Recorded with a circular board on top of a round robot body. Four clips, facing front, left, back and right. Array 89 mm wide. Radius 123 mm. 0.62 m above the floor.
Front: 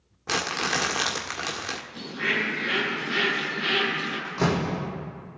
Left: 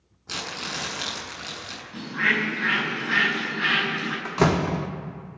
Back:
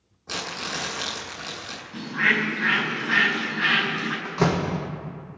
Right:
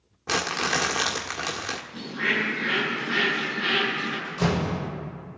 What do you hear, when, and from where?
0.3 s crumpling: 50° right, 1.6 m
1.9 s a bird: 145° left, 4.5 m
4.2 s a door slam: 100° left, 1.4 m